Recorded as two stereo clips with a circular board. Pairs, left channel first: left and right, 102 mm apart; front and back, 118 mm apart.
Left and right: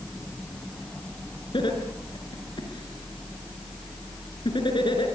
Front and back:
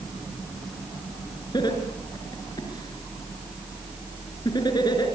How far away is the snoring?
I don't hear snoring.